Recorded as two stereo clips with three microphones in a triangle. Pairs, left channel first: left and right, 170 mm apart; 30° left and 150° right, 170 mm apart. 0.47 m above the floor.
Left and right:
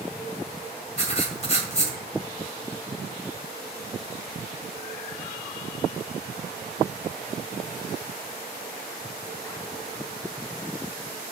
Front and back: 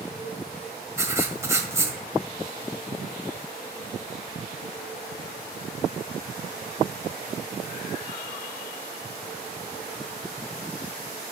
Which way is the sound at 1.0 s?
140° left.